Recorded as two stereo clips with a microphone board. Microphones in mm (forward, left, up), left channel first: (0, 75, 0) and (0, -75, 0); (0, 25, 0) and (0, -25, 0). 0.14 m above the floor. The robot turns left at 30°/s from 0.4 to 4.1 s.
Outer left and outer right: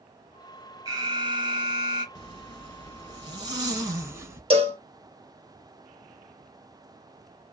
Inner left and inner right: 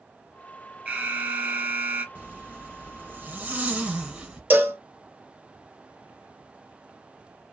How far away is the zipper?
About 1.0 m.